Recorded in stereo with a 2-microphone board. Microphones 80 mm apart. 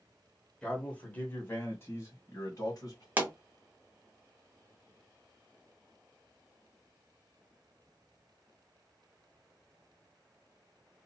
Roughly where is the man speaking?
Centre.